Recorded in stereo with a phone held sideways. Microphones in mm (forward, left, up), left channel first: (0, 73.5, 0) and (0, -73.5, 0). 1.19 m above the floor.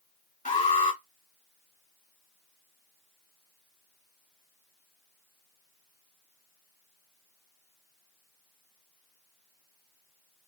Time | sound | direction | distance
0.5 | an alarm | 55° left (ahead or behind) | 2.0 m